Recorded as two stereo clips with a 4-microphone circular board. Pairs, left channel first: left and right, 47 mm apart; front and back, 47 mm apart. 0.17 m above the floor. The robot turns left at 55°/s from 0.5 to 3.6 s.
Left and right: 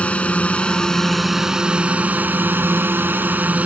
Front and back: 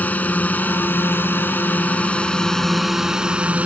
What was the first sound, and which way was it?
A drone, 40° left.